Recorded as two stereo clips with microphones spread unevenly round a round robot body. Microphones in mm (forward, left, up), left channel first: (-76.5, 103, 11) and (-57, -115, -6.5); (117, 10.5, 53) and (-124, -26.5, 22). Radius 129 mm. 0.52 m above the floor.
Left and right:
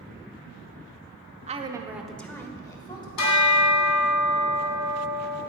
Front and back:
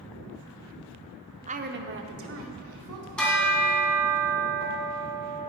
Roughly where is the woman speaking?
Behind right.